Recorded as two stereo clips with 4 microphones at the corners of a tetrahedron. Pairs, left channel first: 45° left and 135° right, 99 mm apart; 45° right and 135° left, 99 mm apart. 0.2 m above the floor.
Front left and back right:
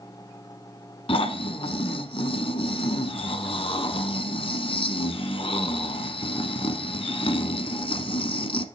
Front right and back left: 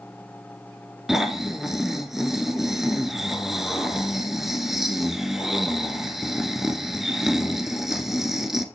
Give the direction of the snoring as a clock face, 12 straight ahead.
10 o'clock.